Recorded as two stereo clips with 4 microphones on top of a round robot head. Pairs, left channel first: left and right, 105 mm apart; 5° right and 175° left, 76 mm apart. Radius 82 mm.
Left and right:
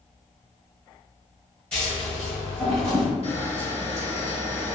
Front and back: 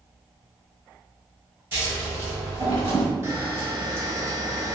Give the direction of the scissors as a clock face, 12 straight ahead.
7 o'clock.